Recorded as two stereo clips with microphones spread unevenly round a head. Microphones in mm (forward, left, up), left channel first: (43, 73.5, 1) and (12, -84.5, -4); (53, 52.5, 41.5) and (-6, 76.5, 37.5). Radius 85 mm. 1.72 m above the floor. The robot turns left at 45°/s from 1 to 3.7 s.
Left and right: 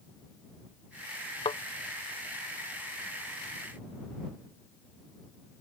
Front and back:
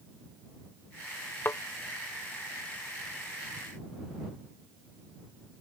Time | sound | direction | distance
1.4 | a thud | 25° left | ?